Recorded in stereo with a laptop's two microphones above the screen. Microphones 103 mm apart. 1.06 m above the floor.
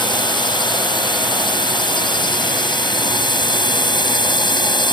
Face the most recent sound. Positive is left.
turn(degrees=45)  # may be behind; listen again after turning